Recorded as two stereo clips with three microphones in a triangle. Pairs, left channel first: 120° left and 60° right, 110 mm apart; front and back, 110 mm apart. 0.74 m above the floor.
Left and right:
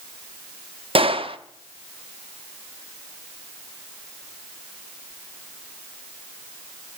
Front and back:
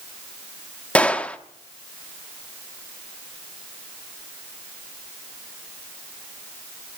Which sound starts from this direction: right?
A gunshot, at 0.9 s.